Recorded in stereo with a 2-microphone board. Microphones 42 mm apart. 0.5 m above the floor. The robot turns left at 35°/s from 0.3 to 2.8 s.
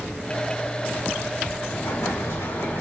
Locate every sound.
1.7 s an explosion: 100° left, 4.5 m; by 2.8 s 60° left, 4.5 m